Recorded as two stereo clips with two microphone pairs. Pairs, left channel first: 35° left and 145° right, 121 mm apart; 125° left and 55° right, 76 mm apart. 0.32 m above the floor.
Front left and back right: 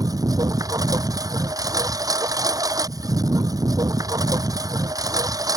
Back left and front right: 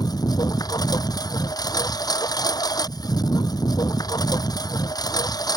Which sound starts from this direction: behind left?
A lawn mower, at 0.0 s.